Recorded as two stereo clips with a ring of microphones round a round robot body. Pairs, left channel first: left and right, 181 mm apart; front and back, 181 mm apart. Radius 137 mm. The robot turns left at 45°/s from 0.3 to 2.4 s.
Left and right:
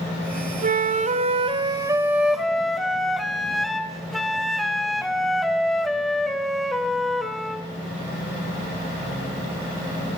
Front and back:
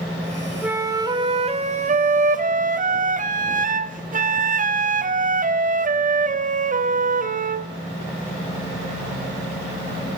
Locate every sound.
0.6 s a flute: 100° right, 1.1 m; by 7.7 s straight behind, 1.1 m